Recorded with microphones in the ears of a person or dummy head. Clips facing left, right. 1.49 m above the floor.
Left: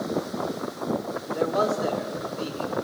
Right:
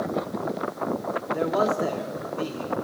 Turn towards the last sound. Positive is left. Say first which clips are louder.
# even
turn(degrees=-30)  # may be behind; listen again after turning